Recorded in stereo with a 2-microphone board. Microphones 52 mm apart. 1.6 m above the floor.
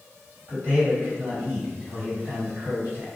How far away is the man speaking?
About 1.7 m.